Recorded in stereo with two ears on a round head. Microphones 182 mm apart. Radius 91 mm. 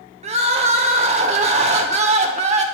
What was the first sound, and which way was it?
Crying, 35° right (ahead or behind).